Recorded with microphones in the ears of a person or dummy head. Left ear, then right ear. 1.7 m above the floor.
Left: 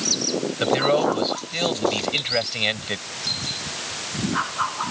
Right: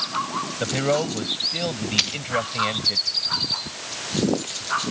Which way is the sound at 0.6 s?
40° left (ahead or behind).